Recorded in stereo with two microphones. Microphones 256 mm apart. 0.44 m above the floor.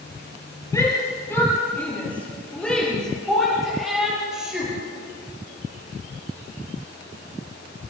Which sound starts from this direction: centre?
A shout, at 0.7 s.